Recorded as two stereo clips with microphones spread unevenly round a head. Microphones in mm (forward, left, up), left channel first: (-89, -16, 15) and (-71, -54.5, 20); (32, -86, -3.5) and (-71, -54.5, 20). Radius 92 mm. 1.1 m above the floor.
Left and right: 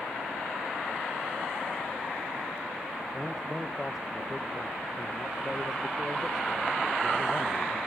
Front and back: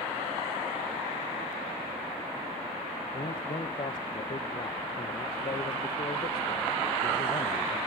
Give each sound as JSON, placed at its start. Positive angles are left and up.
{"t": 3.1, "sound": "a man speaking", "azimuth_deg": 25, "distance_m": 0.8}